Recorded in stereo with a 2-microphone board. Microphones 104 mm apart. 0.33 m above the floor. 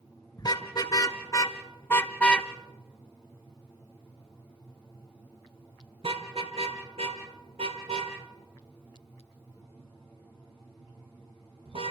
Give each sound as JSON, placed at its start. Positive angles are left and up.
{"t": 0.4, "sound": "a car horn", "side_deg": 45, "distance_m": 2.5}